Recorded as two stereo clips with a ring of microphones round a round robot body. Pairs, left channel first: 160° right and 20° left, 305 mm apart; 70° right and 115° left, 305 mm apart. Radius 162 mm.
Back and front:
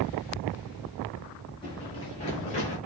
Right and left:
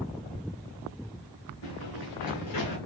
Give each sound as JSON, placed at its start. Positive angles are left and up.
{"t": 1.6, "sound": "running footsteps", "azimuth_deg": -80, "distance_m": 3.5}